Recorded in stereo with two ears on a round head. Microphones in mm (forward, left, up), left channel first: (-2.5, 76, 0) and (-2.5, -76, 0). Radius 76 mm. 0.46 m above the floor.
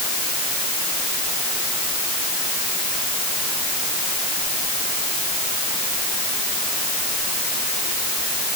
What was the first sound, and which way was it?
Only background noise.